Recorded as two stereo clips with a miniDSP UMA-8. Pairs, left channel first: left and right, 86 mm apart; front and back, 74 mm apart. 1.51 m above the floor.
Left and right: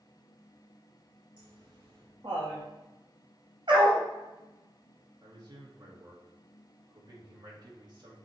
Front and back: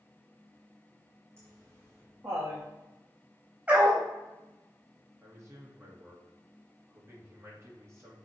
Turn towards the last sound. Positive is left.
turn(degrees=-130)